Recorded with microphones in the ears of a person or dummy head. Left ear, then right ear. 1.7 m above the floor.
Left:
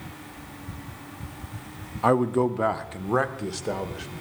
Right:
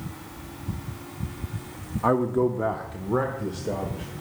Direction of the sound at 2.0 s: 25° left (ahead or behind).